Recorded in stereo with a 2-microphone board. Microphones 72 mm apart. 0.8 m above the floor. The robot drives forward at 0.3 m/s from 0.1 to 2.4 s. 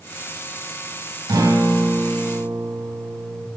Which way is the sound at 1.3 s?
70° right (ahead or behind).